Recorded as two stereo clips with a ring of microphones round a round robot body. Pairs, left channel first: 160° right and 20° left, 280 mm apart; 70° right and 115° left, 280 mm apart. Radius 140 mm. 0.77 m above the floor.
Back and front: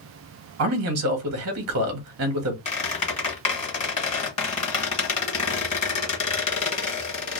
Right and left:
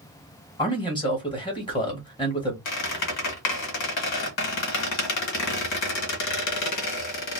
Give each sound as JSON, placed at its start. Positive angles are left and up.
{"t": 0.6, "sound": "a man speaking", "azimuth_deg": 5, "distance_m": 0.9}
{"t": 2.6, "sound": "a squeak", "azimuth_deg": -90, "distance_m": 1.0}